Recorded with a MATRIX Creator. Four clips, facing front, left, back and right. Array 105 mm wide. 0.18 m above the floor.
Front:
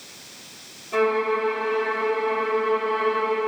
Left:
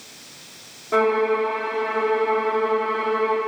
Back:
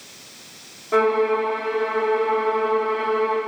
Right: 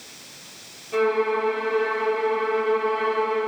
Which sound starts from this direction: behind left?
A violin, at 0.9 s.